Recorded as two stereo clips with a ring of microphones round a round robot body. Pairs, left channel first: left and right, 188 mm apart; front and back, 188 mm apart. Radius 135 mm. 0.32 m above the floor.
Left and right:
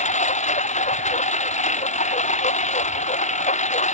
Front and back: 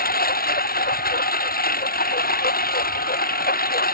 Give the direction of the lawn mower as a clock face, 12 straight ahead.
11 o'clock.